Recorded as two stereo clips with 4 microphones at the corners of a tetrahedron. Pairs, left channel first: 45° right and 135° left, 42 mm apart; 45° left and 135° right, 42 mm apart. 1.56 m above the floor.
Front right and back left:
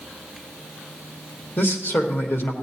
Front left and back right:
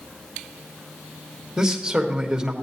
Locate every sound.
1.6 s a man speaking: 60° right, 1.4 m